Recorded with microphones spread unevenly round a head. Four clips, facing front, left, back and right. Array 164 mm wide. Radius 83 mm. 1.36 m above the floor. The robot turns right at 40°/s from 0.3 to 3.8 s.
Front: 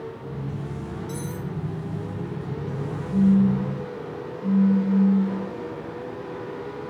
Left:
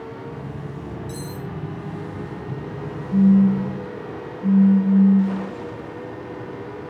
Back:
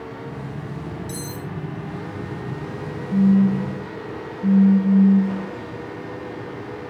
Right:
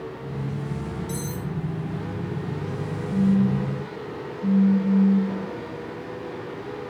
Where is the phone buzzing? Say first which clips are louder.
Left 6 dB, back 2 dB; 165° left, 1.0 m; by 5.5 s 170° right, 1.0 m.